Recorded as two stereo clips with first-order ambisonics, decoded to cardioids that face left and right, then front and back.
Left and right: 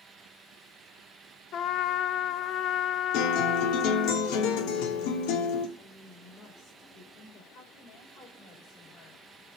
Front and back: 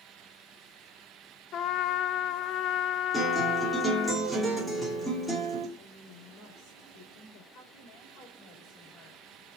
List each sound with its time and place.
1.5 s a trumpet: 40° left, 0.6 m
3.1 s a guitar: 90° left, 3 m
5.8 s a woman speaking: 30° left, 2.5 m
7.5 s a woman speaking: 45° left, 4.5 m